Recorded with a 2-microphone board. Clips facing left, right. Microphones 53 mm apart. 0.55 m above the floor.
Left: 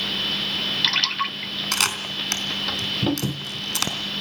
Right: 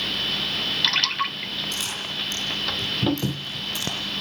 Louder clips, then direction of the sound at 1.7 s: Left 5 dB; 85° left.